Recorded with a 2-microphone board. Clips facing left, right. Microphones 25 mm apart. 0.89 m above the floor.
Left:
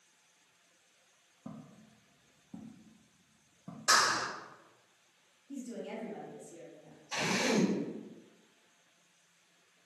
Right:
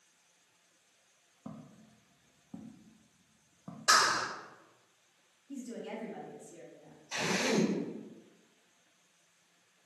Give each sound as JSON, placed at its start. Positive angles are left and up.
{"t": 1.4, "sound": "footsteps", "side_deg": -40, "distance_m": 1.4}
{"t": 3.9, "sound": "a clap", "side_deg": -40, "distance_m": 1.9}
{"t": 5.5, "sound": "a woman speaking", "side_deg": -30, "distance_m": 2.0}
{"t": 7.1, "sound": "a drill", "side_deg": -10, "distance_m": 2.5}